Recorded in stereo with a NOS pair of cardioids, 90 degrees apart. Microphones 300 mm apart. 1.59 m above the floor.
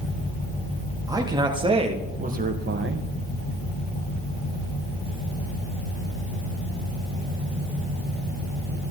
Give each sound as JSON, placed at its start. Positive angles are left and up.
{"t": 1.1, "sound": "a man speaking", "azimuth_deg": -10, "distance_m": 3.5}